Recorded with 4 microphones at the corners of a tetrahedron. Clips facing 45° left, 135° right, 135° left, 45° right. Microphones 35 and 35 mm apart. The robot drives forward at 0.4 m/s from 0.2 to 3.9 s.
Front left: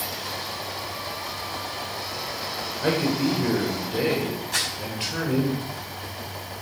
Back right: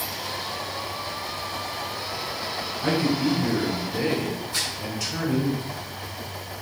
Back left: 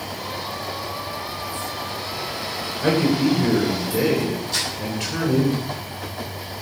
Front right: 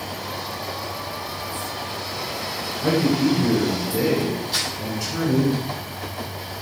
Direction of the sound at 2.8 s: 90° left.